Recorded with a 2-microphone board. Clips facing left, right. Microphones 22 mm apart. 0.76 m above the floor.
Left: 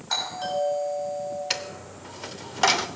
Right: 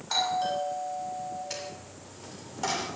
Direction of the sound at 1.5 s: 60° left (ahead or behind).